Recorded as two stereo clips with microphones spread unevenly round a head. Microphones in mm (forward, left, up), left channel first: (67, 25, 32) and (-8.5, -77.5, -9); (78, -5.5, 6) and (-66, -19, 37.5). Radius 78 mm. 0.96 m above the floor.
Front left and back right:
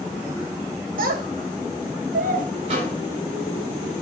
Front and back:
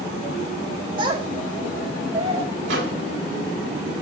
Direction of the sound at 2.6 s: Straight behind.